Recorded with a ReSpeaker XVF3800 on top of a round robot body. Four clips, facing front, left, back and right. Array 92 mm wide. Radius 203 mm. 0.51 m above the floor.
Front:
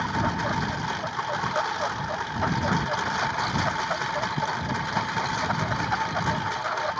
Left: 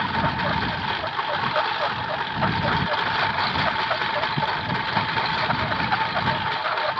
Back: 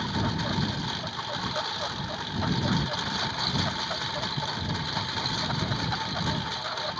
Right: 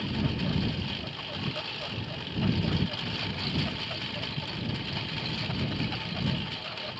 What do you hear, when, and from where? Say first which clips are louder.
0.0 s a lawn mower: left 9 dB, front 4 dB; 65° left